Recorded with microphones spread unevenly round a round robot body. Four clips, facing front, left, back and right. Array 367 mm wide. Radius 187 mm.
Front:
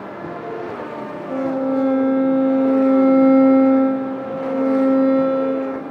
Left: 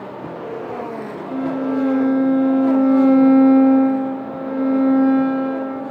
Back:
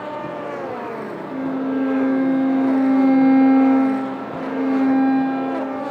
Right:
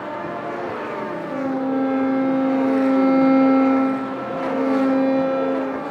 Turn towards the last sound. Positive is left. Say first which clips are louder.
# left 2 dB, front 3 dB
turn(degrees=-5)